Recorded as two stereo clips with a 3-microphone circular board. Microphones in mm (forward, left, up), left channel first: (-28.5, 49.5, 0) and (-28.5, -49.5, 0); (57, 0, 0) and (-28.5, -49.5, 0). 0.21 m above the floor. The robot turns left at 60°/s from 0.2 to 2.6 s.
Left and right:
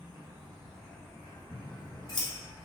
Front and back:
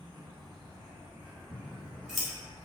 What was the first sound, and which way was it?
An insect, 150° right.